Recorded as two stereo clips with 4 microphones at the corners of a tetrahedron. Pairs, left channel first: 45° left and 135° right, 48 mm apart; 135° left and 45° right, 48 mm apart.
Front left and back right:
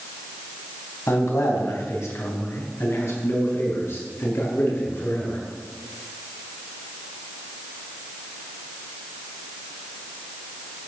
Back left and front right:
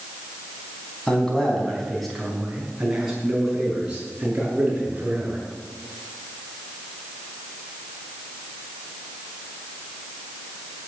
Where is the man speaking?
65° left, 4 m; by 5.4 s 15° left, 7 m.